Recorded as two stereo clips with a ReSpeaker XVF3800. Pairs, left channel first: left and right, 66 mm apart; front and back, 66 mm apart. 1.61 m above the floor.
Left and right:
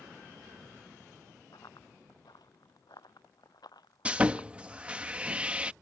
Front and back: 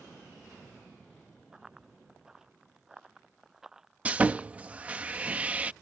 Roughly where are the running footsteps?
Left.